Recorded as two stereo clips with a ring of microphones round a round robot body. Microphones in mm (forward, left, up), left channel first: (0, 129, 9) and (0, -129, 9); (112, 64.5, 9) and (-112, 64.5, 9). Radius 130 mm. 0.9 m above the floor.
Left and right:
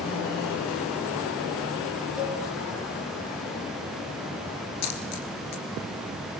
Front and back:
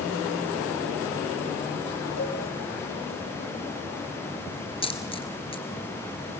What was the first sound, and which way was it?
A cowbell, straight ahead.